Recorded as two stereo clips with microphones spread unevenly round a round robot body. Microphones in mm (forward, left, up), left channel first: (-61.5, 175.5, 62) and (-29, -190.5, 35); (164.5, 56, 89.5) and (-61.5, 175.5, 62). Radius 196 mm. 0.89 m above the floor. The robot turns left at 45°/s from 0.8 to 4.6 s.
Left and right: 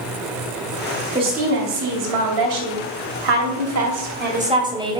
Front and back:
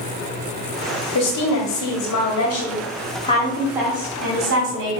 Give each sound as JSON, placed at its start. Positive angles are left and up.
{"t": 1.1, "sound": "a woman speaking", "azimuth_deg": -5, "distance_m": 2.5}